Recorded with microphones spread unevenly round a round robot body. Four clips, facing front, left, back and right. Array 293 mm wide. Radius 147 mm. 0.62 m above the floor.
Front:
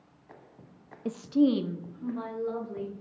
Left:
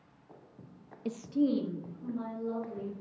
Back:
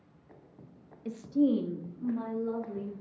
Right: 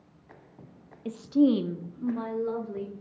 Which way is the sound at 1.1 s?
10° left.